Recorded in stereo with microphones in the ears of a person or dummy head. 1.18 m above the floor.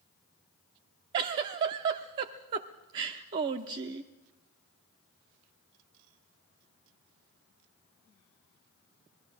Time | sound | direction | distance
1.1 | a giggle | 25° right (ahead or behind) | 0.8 m